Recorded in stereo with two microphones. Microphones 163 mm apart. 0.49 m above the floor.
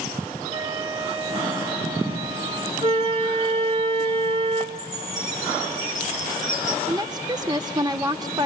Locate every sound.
0.5 s a flute: 35° right (ahead or behind), 1.2 m
2.8 s a flute: 35° right (ahead or behind), 2.5 m
4.8 s a chime: 20° left (ahead or behind), 9.5 m
6.9 s a woman speaking: 25° right (ahead or behind), 1.1 m